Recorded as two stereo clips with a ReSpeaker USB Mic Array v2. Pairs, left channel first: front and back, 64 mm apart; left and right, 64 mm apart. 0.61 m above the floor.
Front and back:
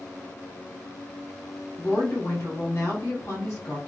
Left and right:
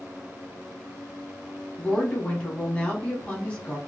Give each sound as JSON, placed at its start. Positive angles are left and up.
{"t": 1.8, "sound": "a woman speaking", "azimuth_deg": 25, "distance_m": 1.3}